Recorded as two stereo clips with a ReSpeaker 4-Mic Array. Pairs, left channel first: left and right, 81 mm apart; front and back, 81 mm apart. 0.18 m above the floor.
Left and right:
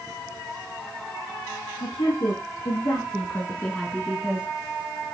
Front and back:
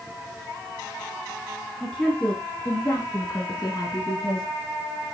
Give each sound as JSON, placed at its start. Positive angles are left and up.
{"t": 1.8, "sound": "a woman speaking", "azimuth_deg": 80, "distance_m": 3.5}